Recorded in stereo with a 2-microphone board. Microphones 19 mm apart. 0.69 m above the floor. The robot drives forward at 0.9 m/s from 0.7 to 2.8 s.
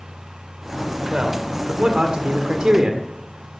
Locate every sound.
1.1 s a man speaking: 45° right (ahead or behind), 1.9 m; by 3.1 s 70° right (ahead or behind), 1.5 m